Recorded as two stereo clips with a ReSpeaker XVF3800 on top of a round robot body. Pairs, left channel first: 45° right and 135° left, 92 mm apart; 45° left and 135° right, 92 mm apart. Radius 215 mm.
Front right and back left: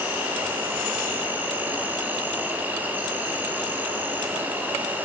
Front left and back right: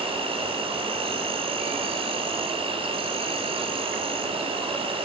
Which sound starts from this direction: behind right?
An insect, at 0.0 s.